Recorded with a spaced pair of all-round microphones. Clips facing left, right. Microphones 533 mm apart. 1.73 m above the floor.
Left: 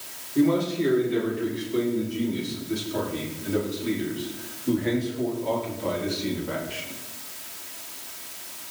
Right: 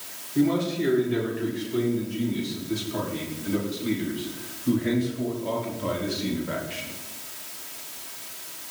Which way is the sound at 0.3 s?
10° right (ahead or behind).